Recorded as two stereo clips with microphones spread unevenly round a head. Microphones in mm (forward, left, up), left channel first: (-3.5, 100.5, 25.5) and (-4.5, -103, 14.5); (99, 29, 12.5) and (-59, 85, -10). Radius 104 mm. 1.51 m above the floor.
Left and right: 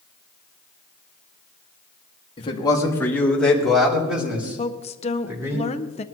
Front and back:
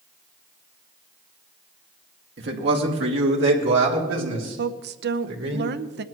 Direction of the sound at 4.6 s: 145° left.